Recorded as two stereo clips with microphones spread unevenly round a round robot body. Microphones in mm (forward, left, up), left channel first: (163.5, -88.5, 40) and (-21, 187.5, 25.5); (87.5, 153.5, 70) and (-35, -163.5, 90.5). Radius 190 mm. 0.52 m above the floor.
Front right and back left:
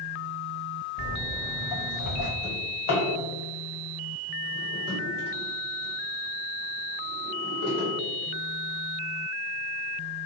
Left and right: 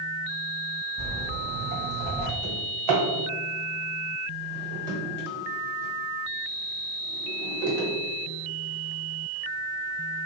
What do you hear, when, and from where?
1.0 s footsteps: 70° right, 1.4 m; by 2.3 s 25° right, 0.8 m
2.4 s a drawer: 110° right, 1.4 m